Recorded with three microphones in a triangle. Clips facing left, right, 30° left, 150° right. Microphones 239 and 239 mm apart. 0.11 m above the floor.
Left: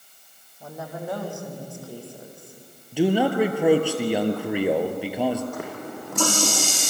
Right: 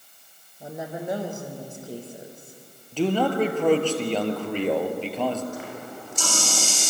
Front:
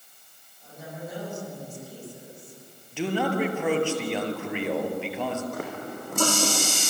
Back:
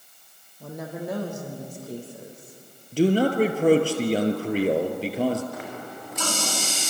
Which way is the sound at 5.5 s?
65° left.